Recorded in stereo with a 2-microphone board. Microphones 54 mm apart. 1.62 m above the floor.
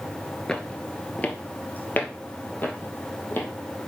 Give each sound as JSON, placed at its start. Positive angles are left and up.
{"t": 0.5, "sound": "footsteps", "side_deg": 15, "distance_m": 1.7}